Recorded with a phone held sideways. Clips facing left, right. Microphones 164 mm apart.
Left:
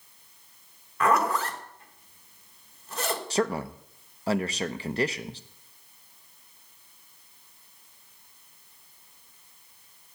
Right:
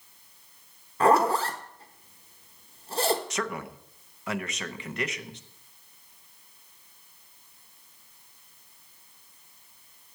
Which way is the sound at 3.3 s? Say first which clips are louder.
Left 6 dB; 30° left (ahead or behind).